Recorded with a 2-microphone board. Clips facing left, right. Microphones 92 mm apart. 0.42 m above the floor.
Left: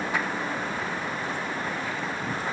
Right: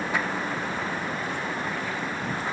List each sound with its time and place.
Only background noise.